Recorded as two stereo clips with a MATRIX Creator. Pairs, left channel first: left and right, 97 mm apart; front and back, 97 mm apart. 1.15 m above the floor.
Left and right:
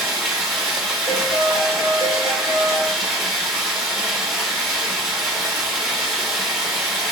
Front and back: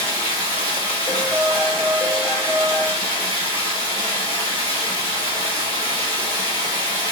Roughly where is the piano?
Left.